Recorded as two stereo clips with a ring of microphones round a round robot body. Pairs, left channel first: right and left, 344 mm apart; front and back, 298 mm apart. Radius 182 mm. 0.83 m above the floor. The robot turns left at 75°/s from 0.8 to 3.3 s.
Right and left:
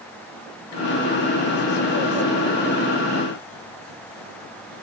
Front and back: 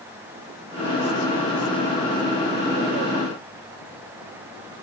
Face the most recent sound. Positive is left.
No sound to turn to.